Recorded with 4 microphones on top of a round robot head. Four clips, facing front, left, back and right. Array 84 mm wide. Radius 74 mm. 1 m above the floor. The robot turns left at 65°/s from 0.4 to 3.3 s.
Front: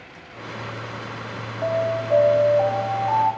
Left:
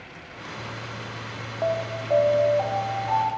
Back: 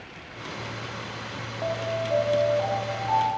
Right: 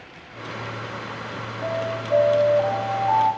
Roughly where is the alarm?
Left.